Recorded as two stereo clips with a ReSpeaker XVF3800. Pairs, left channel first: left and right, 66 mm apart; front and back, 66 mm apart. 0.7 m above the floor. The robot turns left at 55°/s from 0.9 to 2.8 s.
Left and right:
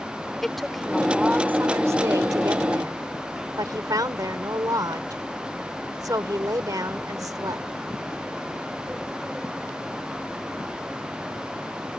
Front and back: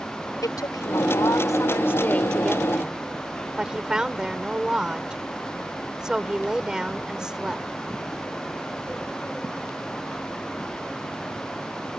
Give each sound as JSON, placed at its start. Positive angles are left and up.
{"t": 0.4, "sound": "a woman speaking", "azimuth_deg": 0}